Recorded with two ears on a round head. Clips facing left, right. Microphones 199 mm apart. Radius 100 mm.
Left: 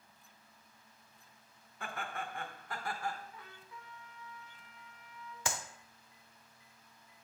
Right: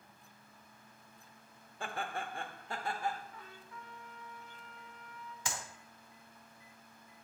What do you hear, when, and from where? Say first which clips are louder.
1.8 s laughter: right 2 dB; 25° right (ahead or behind), 0.8 m; by 3.2 s 20° right (ahead or behind), 0.9 m
3.3 s a trumpet: right 2 dB; 5° left (ahead or behind), 1.3 m
5.5 s a clap: left 3 dB; 45° left (ahead or behind), 0.8 m